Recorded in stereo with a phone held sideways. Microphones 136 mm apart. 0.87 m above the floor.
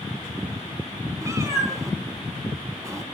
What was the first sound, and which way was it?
A cat meowing, 20° right (ahead or behind).